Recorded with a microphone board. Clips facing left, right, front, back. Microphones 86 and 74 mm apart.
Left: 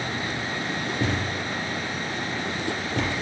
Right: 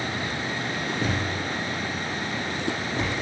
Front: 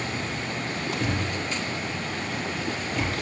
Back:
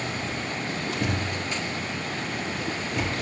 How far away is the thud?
About 4.5 m.